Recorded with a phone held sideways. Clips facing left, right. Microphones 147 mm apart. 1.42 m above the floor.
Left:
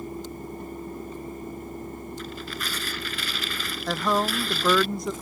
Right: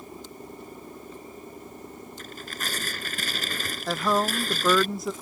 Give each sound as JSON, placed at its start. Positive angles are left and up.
{"t": 0.0, "sound": "a fan", "side_deg": 55}
{"t": 2.2, "sound": "tearing paper", "side_deg": -45}
{"t": 3.9, "sound": "a woman speaking", "side_deg": -5}